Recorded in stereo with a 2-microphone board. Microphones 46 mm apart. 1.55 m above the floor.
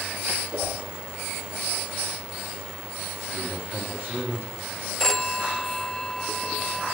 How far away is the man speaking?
About 4 m.